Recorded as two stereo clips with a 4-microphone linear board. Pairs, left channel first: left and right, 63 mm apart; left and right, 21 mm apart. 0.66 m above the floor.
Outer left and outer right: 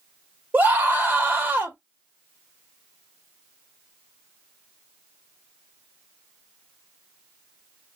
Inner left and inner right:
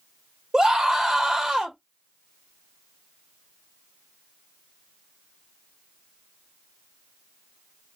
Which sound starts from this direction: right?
A scream, at 0.5 s.